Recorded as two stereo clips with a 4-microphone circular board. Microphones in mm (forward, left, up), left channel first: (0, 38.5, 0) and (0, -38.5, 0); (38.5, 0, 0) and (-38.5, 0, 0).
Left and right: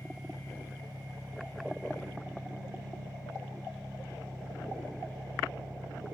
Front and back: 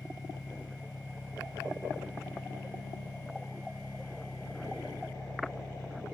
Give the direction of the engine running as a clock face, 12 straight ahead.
2 o'clock.